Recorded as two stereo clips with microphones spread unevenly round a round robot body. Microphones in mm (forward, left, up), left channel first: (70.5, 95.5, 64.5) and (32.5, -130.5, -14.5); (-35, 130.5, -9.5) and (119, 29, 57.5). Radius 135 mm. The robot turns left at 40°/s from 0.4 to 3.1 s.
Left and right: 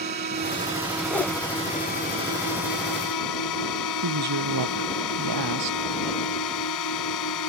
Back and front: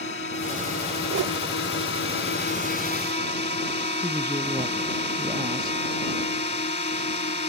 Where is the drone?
160° right; by 7.5 s 95° left.